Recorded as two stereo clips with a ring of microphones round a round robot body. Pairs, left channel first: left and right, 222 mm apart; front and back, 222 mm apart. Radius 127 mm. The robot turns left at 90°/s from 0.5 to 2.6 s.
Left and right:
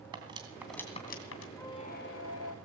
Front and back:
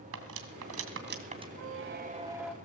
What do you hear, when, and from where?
0.1 s cutlery clinking: 160° right, 2.5 m; by 1.5 s 110° left, 2.5 m
1.6 s a squeak: 175° left, 1.6 m; by 2.5 s 85° left, 1.6 m